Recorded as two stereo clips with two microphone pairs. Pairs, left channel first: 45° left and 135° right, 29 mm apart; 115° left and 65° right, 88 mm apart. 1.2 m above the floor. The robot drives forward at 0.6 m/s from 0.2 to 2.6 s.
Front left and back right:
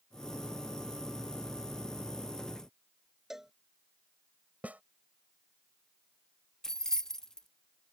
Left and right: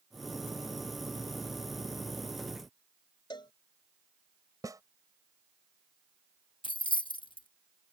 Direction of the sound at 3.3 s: 145° left.